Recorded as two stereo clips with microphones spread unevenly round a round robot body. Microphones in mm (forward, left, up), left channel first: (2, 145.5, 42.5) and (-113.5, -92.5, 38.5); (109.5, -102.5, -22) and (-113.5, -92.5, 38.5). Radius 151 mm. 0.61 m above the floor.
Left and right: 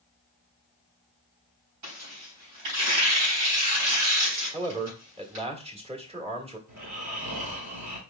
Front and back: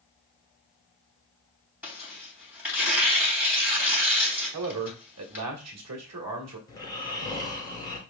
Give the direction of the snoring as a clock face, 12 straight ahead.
3 o'clock.